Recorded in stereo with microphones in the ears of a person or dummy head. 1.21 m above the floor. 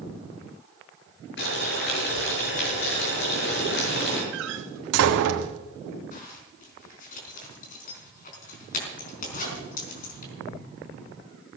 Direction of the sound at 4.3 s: 70° right (ahead or behind).